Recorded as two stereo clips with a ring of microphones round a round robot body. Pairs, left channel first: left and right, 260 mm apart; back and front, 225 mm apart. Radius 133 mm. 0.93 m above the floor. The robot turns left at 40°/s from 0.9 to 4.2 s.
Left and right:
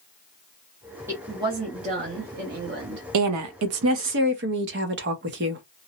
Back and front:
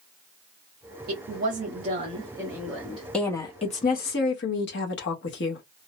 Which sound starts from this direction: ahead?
A woman speaking, at 1.1 s.